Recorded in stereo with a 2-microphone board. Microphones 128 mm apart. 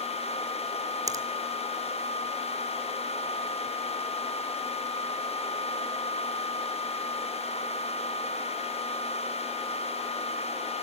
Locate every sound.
1.1 s a finger snap: 25° right (ahead or behind), 1.8 m